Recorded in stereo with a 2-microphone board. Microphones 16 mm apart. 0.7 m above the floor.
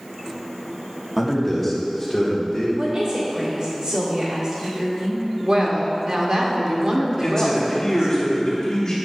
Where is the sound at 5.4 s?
40° right (ahead or behind), 1.0 m.